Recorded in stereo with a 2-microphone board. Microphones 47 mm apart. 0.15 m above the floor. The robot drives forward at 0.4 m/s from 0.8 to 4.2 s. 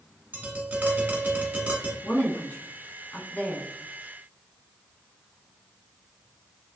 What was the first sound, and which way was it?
Tapping, 30° right (ahead or behind).